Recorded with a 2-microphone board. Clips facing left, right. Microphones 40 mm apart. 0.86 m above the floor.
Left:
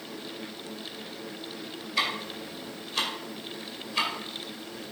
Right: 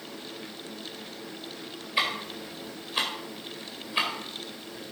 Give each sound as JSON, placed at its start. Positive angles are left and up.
{"t": 2.0, "sound": "ticking", "side_deg": -25, "distance_m": 2.5}